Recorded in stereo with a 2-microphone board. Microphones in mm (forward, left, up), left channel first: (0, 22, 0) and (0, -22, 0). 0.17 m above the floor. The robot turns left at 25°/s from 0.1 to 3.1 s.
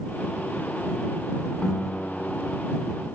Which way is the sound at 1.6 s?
25° left (ahead or behind).